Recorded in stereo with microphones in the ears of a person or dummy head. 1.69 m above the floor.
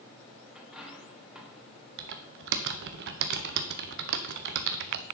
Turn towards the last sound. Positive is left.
turn(degrees=-65)  # may be behind; listen again after turning